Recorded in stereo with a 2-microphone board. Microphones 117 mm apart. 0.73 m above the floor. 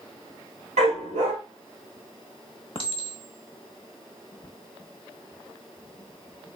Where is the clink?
50° left (ahead or behind), 0.7 m.